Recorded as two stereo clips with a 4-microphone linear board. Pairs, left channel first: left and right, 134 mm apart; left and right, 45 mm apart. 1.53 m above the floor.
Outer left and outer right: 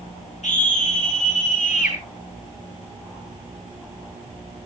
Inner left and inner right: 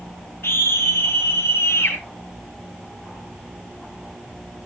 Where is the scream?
65° left (ahead or behind), 2.5 m; by 2.0 s 75° left (ahead or behind), 3.5 m.